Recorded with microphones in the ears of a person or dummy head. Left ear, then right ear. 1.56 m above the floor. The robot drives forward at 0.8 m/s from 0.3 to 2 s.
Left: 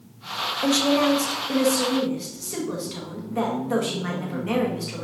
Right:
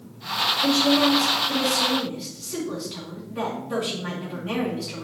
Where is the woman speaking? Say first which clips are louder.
Left 1 dB; 55° left (ahead or behind), 1.1 m; by 5.0 s 30° left (ahead or behind), 1.8 m.